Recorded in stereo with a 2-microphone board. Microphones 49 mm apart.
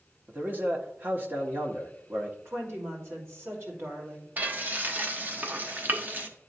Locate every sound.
0.3 s a man speaking: 40° right (ahead or behind), 1.1 m
2.5 s a woman speaking: 60° right (ahead or behind), 2.5 m
4.4 s frying: 35° right (ahead or behind), 0.8 m